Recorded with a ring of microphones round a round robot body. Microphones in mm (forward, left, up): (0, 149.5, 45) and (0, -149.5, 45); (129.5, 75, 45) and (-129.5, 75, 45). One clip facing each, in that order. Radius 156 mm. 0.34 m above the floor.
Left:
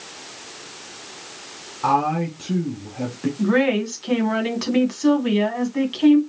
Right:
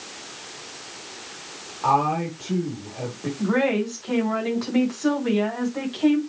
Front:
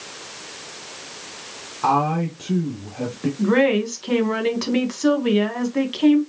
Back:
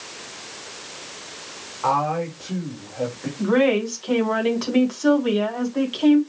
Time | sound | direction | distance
1.8 | a man speaking | 40° left | 3.5 m
3.4 | a woman speaking | 55° left | 3.5 m